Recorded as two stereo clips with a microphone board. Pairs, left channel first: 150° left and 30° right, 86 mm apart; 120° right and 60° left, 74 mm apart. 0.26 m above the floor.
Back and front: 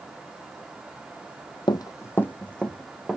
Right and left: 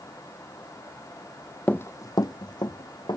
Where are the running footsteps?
170° left, 0.5 m; by 3.2 s 120° right, 1.5 m.